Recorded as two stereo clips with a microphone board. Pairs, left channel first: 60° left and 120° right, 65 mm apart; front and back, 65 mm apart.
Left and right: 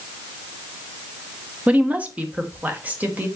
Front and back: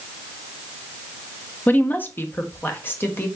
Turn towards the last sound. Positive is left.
turn(degrees=-55)